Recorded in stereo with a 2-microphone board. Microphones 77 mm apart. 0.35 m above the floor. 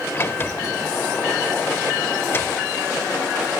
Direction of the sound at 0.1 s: 30° left (ahead or behind).